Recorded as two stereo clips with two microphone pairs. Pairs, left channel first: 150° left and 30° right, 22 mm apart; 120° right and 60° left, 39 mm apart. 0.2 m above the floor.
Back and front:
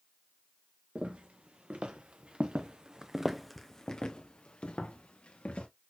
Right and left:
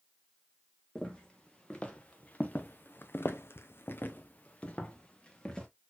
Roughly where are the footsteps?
Ahead right.